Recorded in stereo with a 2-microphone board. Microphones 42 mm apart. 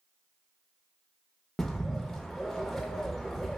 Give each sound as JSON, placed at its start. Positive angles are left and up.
{"t": 1.6, "sound": "a bird", "side_deg": 10, "distance_m": 0.6}